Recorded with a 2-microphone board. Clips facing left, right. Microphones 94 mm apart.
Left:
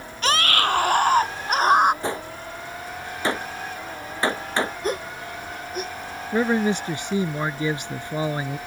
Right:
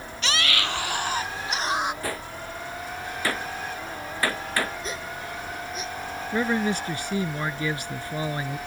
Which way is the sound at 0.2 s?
50° left (ahead or behind).